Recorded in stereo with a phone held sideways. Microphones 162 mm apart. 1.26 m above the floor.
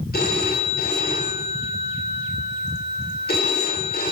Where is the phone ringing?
80° left, 3.5 m.